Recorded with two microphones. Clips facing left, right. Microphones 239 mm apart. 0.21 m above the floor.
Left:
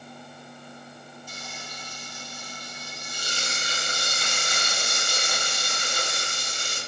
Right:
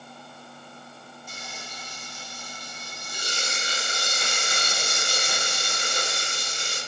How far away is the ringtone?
I don't hear a ringtone.